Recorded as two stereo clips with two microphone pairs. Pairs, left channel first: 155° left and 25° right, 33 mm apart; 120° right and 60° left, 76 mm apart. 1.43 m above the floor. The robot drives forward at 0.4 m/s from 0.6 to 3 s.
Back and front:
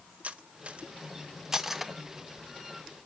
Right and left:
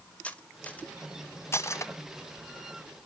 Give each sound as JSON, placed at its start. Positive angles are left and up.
{"t": 0.2, "sound": "cutlery clinking", "azimuth_deg": -50, "distance_m": 0.8}